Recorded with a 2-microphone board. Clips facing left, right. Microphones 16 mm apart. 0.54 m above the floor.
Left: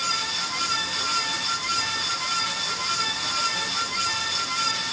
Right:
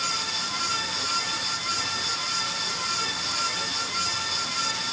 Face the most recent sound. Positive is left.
No sound to turn to.